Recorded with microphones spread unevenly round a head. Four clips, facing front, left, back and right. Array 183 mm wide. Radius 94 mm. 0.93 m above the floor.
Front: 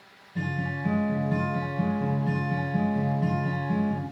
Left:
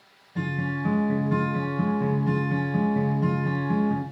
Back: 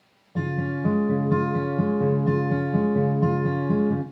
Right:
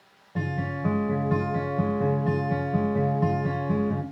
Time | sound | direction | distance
0.3 | a guitar | 145° right | 4 m